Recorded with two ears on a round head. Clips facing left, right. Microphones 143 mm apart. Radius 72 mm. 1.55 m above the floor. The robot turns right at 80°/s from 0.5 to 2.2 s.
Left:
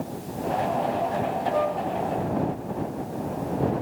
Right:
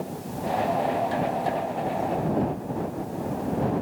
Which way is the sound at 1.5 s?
65° left (ahead or behind).